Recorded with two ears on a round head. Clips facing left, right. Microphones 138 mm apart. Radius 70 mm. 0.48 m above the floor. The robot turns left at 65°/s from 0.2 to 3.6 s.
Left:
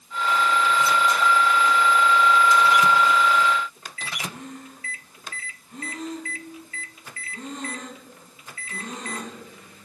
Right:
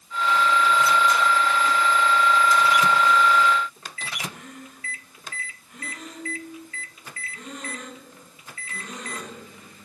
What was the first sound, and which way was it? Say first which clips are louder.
Breathing: left 3 dB; 30° left (ahead or behind).